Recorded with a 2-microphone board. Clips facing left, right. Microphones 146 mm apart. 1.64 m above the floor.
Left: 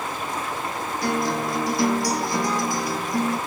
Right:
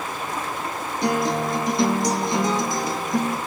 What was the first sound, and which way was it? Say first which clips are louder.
A guitar: right 3 dB; 20° right (ahead or behind).